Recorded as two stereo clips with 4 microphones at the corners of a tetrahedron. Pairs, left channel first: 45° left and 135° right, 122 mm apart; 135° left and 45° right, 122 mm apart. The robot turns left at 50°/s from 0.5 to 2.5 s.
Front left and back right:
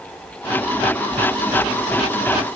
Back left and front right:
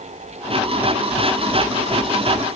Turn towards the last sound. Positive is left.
No sound to turn to.